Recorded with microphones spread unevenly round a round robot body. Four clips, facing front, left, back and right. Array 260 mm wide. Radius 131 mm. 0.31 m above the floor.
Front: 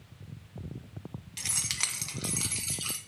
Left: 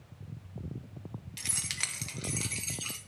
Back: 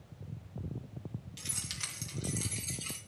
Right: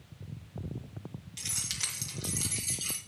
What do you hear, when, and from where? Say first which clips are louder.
1.4 s keys jangling: left 4 dB, front 5 dB; 10° left, 2 m; by 3.0 s 30° left, 3 m